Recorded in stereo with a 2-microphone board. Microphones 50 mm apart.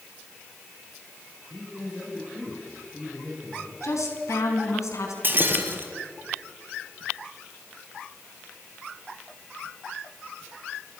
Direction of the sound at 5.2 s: 45° right (ahead or behind).